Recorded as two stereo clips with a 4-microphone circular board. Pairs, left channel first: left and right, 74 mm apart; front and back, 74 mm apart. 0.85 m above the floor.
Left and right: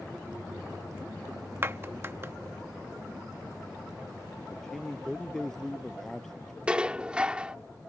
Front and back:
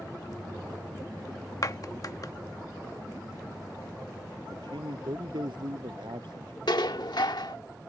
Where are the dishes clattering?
15° right.